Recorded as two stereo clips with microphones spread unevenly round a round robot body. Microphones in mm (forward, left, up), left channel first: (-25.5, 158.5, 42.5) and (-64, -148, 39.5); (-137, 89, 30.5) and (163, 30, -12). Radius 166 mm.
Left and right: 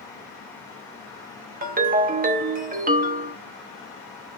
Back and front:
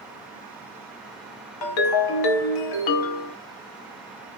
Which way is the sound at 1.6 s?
160° right.